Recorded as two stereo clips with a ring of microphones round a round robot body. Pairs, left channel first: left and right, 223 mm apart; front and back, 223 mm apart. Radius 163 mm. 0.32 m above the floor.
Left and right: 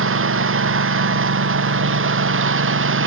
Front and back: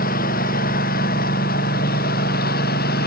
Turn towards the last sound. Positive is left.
turn(degrees=-65)